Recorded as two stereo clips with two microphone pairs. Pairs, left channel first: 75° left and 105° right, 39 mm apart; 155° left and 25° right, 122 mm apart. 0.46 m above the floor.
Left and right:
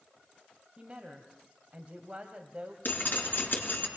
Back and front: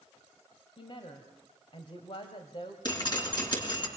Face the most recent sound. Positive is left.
turn(degrees=105)